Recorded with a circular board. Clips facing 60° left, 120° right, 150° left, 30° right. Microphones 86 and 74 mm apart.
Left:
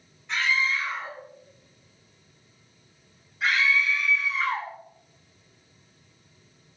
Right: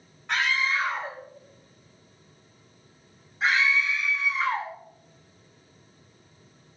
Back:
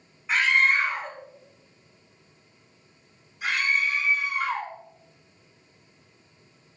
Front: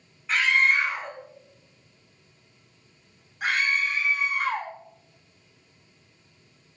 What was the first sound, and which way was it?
A scream, 125° right.